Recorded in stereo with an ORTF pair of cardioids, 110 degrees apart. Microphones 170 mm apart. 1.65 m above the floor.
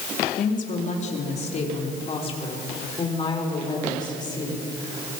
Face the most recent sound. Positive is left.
turn(degrees=25)